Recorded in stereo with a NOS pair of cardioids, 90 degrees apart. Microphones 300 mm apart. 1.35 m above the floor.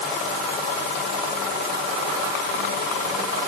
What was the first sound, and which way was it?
Only background noise.